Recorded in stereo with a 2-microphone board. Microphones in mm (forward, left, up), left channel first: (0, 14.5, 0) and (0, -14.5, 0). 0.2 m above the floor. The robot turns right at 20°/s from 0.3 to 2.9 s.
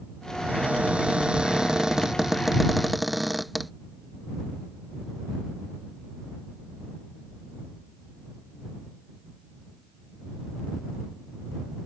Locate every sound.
0.4 s a cupboard door: 55° right; by 3.7 s 5° right